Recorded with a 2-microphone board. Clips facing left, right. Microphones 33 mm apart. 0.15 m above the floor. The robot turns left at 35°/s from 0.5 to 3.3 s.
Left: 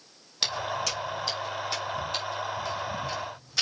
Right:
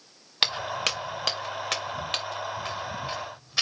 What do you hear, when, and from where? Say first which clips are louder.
0.4 s footsteps: right 3 dB; 40° right (ahead or behind), 1.9 m; by 3.6 s 20° right (ahead or behind), 3.5 m